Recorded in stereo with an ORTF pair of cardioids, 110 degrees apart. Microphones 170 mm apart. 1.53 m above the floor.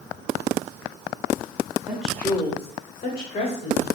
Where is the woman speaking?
10° right, 0.9 m; by 3.9 s 80° left, 1.4 m.